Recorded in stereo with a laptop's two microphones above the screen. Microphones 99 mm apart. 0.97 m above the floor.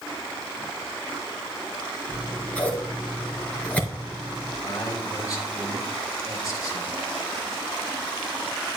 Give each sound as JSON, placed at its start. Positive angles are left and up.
{"t": 2.1, "sound": "scissors", "side_deg": 15, "distance_m": 3.5}
{"t": 4.6, "sound": "a man speaking", "side_deg": 35, "distance_m": 2.5}